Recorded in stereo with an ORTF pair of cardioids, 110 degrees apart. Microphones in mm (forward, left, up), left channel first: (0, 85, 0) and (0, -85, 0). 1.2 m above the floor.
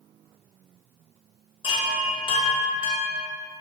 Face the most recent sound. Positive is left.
turn(degrees=30)